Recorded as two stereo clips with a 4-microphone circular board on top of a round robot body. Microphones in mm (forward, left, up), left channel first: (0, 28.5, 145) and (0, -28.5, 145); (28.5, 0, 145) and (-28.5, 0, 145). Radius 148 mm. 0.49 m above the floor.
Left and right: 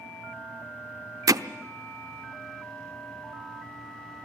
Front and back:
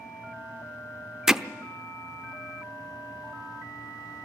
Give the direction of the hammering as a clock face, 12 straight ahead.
3 o'clock.